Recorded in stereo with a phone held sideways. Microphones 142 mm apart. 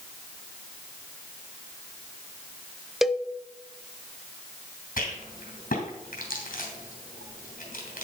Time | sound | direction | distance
3.0 | a cowbell | centre (ahead or behind) | 0.5 m
5.0 | a rattle | 80° left | 3 m